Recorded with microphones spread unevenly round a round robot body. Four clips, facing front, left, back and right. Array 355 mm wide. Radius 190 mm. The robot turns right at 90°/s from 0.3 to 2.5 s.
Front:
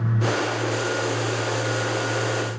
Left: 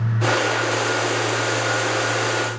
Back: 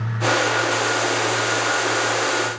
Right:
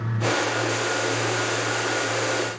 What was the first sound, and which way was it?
Only background noise.